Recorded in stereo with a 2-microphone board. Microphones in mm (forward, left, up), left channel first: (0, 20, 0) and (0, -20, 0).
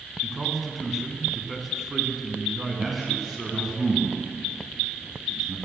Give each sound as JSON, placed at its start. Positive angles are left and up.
{"t": 0.2, "sound": "a man speaking", "side_deg": 0, "distance_m": 3.0}
{"t": 2.8, "sound": "a man speaking", "side_deg": -10, "distance_m": 2.5}